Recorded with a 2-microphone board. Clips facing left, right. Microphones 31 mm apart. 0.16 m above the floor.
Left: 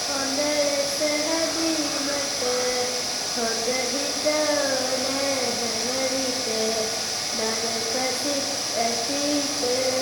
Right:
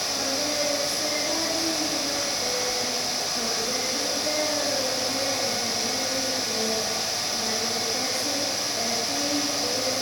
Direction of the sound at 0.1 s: 40° left (ahead or behind).